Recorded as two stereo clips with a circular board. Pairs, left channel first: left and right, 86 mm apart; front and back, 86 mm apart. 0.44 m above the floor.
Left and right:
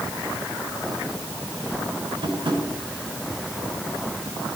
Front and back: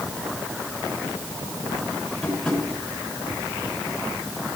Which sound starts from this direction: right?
Tapping, at 2.2 s.